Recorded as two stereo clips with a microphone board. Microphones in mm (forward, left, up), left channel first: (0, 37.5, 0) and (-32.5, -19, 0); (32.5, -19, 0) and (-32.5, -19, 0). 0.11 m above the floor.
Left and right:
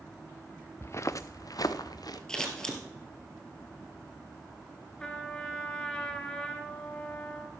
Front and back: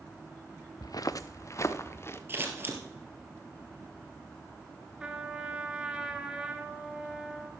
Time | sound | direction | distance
0.8 | footsteps | 10° left | 0.5 m
2.3 | scissors | 140° left | 2 m
5.0 | a trumpet | 120° left | 1.4 m